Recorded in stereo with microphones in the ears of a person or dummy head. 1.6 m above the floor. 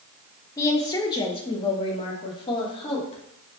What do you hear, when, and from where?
0.6 s a woman speaking: 15° left (ahead or behind), 1.1 m; by 3.2 s 30° left (ahead or behind), 2.5 m